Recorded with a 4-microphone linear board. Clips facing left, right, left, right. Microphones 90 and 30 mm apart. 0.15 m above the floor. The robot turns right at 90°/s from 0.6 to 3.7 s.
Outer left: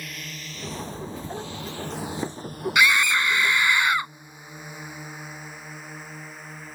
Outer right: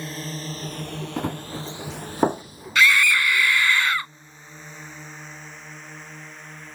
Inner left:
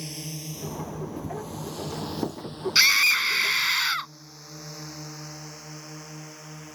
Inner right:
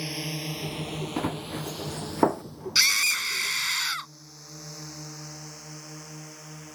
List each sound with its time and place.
0.0 s a drone: 30° right (ahead or behind); by 6.8 s 5° left (ahead or behind)
1.2 s running footsteps: 65° right (ahead or behind); by 2.4 s 50° right (ahead or behind)
2.8 s a scream: 15° left (ahead or behind); by 4.1 s 20° left (ahead or behind)